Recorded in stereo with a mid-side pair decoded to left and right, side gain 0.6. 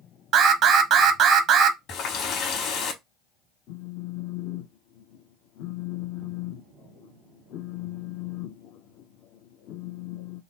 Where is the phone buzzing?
65° left, 0.6 m.